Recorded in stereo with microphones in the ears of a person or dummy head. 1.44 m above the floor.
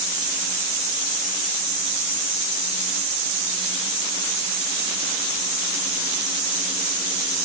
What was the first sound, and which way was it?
Only background noise.